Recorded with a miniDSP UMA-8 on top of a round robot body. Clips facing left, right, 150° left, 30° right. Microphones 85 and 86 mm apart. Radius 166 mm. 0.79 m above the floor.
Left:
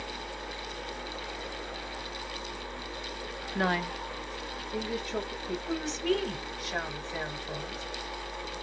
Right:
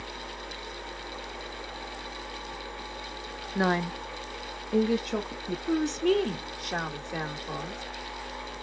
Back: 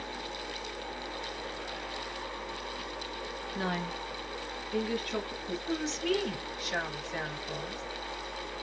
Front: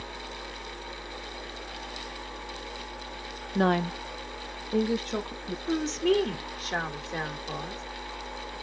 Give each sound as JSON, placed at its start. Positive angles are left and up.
{"t": 3.5, "sound": "a woman speaking", "azimuth_deg": -10, "distance_m": 0.5}
{"t": 5.7, "sound": "a woman speaking", "azimuth_deg": -80, "distance_m": 2.0}